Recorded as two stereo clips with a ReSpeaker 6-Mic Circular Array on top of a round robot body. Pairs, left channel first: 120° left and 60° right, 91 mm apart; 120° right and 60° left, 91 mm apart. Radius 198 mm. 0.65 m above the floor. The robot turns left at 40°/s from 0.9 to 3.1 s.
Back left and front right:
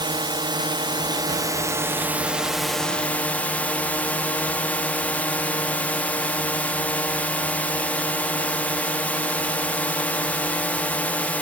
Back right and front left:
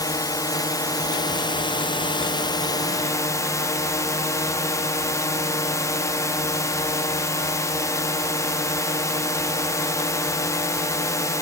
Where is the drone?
80° right; by 11.4 s 170° right.